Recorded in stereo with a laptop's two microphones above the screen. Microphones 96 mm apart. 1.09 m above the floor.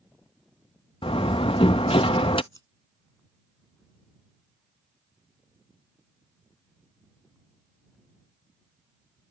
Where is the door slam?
70° left (ahead or behind).